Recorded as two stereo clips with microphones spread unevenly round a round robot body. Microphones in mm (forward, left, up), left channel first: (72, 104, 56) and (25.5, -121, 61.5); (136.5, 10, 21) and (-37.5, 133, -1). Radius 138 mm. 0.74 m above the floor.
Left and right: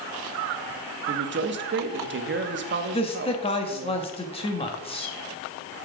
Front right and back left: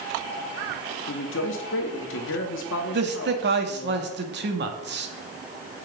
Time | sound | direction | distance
1.1 | a man speaking | 70° right | 1.0 m
2.9 | a man speaking | 140° left | 1.2 m